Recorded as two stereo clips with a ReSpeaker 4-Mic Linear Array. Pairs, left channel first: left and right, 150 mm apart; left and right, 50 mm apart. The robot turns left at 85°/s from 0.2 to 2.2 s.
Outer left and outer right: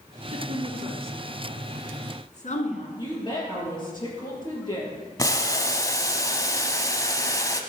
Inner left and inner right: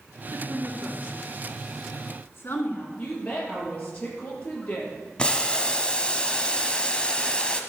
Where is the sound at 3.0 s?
30° left (ahead or behind), 5 m.